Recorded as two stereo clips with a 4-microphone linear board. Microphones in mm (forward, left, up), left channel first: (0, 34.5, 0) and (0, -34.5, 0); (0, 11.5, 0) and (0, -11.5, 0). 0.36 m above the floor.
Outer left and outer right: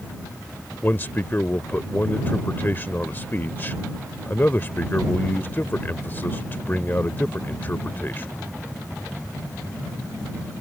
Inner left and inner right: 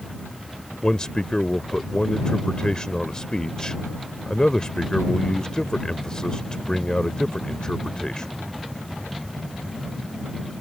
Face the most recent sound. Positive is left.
turn(degrees=30)  # may be behind; listen again after turning